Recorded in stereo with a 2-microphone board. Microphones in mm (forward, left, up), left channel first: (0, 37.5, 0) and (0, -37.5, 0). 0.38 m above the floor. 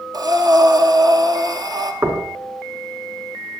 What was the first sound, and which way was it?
Breathing, 60° right (ahead or behind).